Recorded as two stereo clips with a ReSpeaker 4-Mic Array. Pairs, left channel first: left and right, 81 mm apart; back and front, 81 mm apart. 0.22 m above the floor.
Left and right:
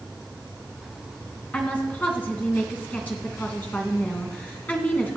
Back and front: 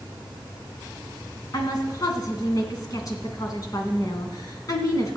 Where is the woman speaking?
155° left, 2.5 m.